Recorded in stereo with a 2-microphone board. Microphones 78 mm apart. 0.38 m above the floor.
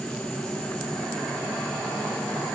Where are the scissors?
No scissors in this recording.